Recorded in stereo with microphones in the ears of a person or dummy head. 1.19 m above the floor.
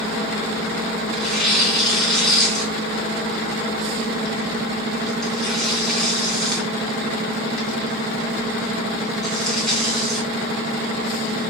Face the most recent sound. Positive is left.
turn(degrees=5)  # may be behind; listen again after turning